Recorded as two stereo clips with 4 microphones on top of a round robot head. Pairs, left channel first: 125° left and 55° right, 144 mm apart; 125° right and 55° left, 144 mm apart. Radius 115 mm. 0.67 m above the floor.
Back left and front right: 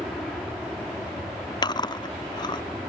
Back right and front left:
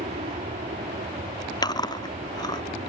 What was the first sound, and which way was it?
An aircraft, 35° left.